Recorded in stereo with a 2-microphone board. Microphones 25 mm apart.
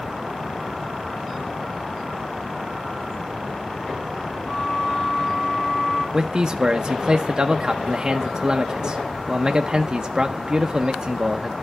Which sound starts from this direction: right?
A man speaking, at 6.1 s.